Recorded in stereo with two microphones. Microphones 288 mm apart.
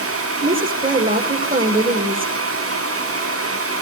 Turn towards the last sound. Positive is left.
turn(degrees=-30)  # may be behind; listen again after turning